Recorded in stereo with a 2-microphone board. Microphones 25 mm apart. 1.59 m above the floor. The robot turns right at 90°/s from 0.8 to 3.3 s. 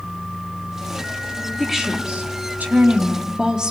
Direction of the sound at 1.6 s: 175° right.